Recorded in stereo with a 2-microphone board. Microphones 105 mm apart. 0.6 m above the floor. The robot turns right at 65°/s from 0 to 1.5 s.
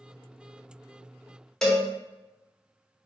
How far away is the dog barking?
No dog barking in this recording.